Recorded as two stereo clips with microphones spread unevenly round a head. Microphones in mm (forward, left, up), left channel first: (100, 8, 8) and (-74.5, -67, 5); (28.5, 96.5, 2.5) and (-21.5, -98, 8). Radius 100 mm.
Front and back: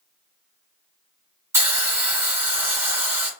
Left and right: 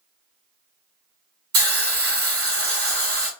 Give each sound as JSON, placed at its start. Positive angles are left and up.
{"t": 1.5, "sound": "a hiss", "azimuth_deg": -80, "distance_m": 2.0}